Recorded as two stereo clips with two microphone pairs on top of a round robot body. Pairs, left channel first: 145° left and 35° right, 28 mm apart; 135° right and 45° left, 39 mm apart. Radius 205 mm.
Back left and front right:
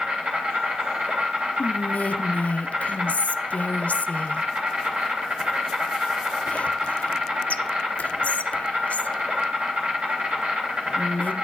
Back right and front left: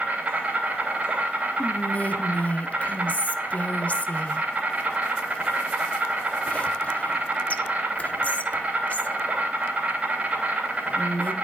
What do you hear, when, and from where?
0.0 s an insect: straight ahead, 2.5 m
1.6 s whispering: 175° left, 0.6 m